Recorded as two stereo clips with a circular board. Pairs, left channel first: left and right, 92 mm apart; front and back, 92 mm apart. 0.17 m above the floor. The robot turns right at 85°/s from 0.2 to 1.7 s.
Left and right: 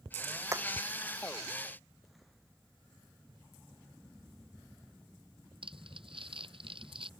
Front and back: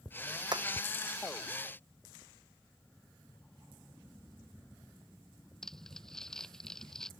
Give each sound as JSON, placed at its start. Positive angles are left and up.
{"t": 0.5, "sound": "hammering", "azimuth_deg": -145}
{"t": 3.3, "sound": "a drawer", "azimuth_deg": -50}
{"t": 5.6, "sound": "crumpling", "azimuth_deg": -85}